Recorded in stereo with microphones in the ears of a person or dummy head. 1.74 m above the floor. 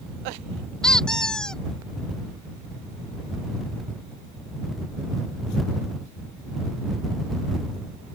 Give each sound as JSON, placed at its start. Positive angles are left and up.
{"t": 0.8, "sound": "a squeak", "side_deg": 5}